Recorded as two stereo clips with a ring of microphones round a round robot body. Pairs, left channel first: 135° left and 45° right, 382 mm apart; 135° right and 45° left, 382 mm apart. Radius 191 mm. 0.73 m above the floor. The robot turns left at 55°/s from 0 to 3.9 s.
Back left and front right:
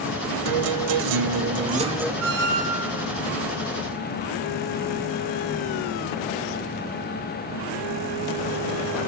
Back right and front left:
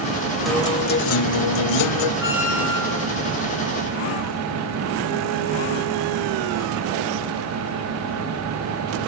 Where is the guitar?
45° right, 1.1 m; by 2.1 s 135° right, 1.1 m.